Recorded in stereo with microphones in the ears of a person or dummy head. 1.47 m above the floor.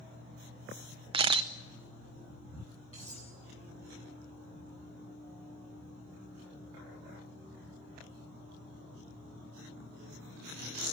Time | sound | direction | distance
1.1 | a camera shutter | 30° right (ahead or behind) | 0.6 m
2.9 | cutlery clinking | 35° left (ahead or behind) | 7.5 m